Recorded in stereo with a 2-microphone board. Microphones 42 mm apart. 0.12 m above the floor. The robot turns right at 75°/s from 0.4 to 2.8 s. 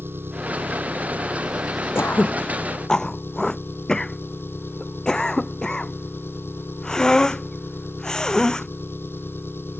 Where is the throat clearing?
75° left (ahead or behind); by 8.7 s 15° left (ahead or behind).